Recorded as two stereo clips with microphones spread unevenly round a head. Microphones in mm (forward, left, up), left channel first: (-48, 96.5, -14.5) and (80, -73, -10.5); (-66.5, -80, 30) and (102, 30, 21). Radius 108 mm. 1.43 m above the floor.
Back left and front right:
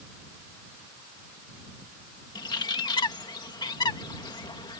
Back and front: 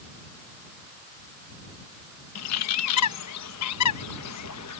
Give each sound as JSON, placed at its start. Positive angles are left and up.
{"t": 2.4, "sound": "a bird", "azimuth_deg": -160}